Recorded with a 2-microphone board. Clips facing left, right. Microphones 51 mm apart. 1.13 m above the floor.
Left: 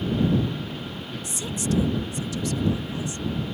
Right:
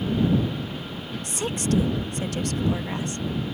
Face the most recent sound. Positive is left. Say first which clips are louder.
# right 3 dB
turn(degrees=-55)  # may be behind; listen again after turning